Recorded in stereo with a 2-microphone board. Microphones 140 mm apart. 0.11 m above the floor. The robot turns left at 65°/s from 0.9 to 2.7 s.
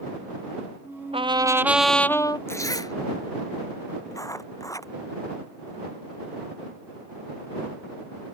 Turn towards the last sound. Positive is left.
turn(degrees=25)  # may be behind; listen again after turning